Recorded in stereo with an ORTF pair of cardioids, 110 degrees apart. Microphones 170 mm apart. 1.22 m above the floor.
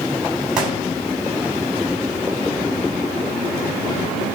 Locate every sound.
0.6 s a gunshot: 5° right, 7.5 m